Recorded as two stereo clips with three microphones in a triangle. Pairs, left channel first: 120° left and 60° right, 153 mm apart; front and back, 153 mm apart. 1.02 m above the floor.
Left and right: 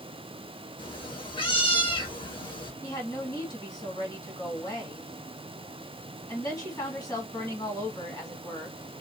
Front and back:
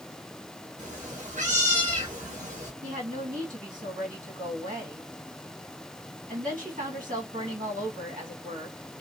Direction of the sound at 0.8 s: 170° left.